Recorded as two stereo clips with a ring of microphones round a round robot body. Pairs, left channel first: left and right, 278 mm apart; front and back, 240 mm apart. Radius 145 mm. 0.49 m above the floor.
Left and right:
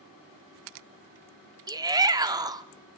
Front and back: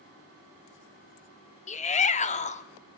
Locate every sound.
1.7 s a shout: 25° right, 0.9 m